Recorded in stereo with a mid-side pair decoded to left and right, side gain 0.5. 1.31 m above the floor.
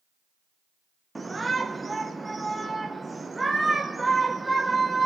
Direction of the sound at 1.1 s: 15° right.